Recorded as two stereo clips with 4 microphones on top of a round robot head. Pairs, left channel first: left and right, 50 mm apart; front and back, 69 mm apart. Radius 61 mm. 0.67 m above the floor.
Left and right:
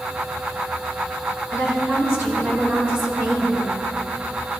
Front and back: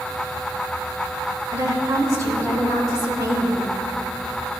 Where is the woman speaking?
135° right, 4 m.